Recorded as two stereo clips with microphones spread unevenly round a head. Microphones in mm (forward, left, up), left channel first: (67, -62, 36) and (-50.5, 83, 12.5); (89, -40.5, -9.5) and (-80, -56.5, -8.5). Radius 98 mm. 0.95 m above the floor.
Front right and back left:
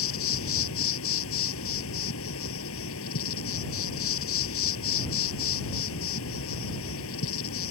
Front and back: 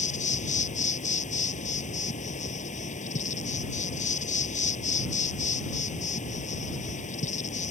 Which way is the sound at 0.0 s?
40° right.